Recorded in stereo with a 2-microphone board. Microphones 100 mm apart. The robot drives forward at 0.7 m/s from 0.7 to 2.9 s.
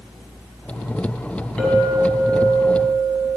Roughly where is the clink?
Centre.